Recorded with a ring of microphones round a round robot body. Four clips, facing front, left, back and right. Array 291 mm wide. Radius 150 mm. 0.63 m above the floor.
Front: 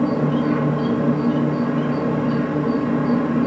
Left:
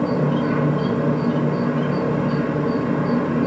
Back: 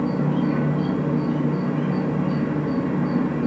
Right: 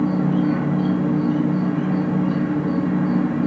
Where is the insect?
60° left, 1.1 m.